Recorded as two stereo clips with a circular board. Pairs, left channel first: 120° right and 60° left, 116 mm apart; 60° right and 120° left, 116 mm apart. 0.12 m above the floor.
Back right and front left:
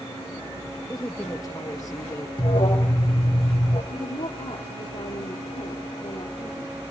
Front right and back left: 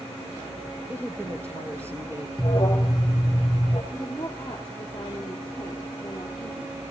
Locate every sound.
0.9 s a woman speaking: 175° right, 3 m
2.4 s an alarm: 95° right, 3 m
3.9 s a woman speaking: 135° right, 3 m